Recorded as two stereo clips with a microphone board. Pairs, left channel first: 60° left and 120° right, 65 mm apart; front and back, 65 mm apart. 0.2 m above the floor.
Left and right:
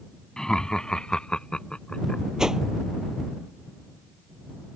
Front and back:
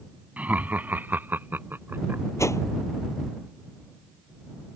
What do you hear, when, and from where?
0.4 s laughter: 135° left; by 2.2 s 130° left
2.4 s a whoosh: 40° right